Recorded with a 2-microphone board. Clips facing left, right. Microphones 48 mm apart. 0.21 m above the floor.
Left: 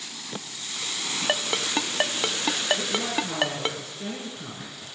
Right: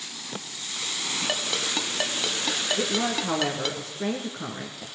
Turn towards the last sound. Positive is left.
turn(degrees=-50)  # may be behind; listen again after turning